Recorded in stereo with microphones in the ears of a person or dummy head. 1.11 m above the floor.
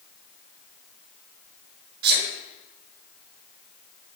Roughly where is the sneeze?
Right.